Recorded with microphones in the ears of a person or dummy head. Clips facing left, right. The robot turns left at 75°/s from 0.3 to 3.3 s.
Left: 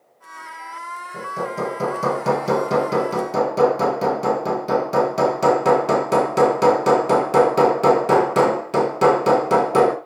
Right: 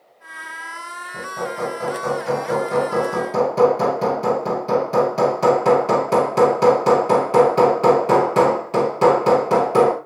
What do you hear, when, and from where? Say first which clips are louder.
1.1 s hammering: even; 175° left, 3.5 m; by 9.9 s 15° left, 3.5 m